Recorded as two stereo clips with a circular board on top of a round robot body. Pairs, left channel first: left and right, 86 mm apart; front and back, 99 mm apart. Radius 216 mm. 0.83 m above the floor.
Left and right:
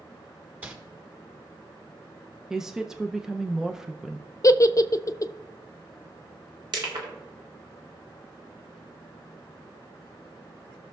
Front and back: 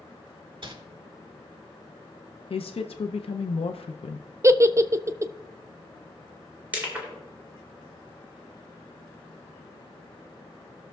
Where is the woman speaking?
5° right, 0.6 m.